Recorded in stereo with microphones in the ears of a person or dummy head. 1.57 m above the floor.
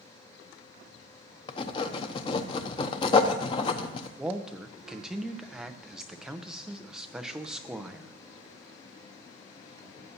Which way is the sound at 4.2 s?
Centre (ahead or behind).